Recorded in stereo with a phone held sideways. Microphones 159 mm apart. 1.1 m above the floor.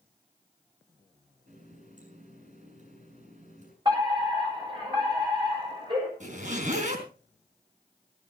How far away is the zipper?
About 3.5 m.